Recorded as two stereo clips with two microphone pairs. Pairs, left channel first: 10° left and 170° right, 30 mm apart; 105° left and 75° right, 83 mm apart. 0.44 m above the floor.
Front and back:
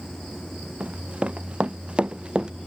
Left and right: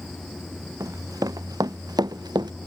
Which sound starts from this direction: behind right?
Running footsteps, at 0.8 s.